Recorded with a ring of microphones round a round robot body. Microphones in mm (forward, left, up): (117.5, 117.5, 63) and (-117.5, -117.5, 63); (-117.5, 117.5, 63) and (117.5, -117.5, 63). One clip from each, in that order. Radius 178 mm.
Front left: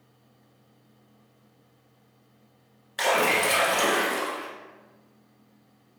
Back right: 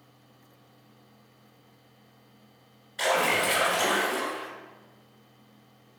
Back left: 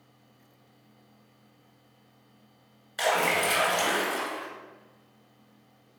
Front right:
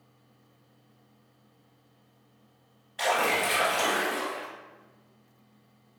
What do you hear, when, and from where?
3.0 s a splash: 100° left, 1.8 m